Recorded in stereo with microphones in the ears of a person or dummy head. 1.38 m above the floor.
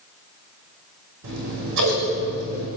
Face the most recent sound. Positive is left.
turn(degrees=-70)  # may be behind; listen again after turning